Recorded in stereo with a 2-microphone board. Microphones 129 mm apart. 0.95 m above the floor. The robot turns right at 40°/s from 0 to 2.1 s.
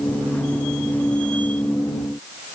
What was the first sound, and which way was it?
Only background noise.